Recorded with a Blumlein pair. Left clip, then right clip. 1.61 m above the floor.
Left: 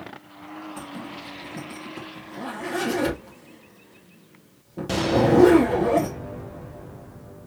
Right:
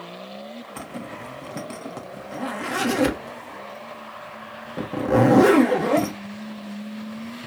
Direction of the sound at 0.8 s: 65° right.